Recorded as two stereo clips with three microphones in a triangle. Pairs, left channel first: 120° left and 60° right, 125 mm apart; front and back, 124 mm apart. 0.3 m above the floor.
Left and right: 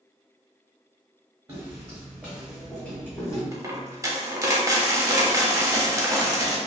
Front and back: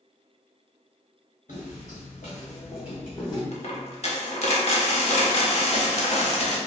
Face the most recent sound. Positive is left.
turn(degrees=0)